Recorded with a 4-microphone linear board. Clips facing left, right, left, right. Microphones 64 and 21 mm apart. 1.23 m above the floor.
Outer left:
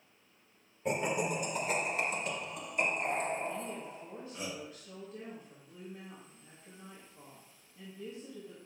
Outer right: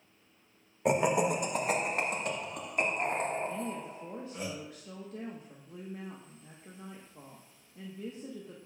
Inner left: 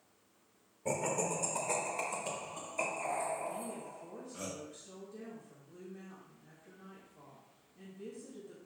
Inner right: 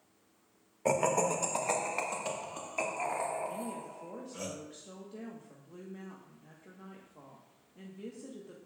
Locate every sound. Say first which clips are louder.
0.8 s laughter: outer right 6 dB, inner right 6 dB; 85° right, 0.9 m; by 4.5 s 55° right (ahead or behind), 4 m
3.5 s a woman speaking: outer right 2 dB, inner right 2 dB; 65° right (ahead or behind), 1.3 m